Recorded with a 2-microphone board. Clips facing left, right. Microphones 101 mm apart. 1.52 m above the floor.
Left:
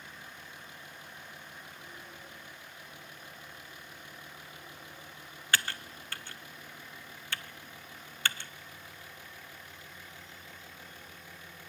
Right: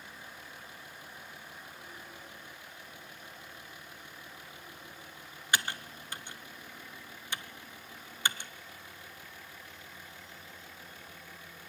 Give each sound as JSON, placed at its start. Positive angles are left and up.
{"t": 5.5, "sound": "typing on a keyboard", "side_deg": -20, "distance_m": 0.5}